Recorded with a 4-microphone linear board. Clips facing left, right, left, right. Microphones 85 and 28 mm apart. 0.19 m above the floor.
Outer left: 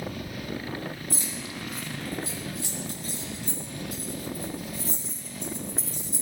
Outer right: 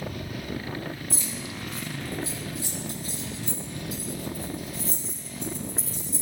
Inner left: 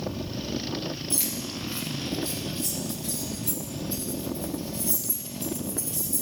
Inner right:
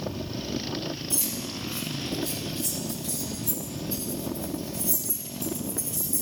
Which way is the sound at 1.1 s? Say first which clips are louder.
Even, even; 55° left (ahead or behind).